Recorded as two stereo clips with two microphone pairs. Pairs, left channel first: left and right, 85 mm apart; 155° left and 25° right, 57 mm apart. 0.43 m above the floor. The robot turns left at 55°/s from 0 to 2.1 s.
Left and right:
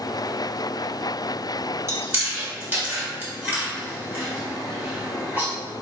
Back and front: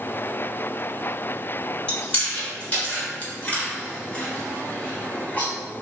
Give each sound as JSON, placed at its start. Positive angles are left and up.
{"t": 1.9, "sound": "chewing", "azimuth_deg": -140, "distance_m": 1.1}